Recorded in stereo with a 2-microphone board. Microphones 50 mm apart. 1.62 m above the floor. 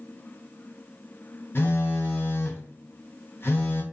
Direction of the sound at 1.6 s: 50° left (ahead or behind).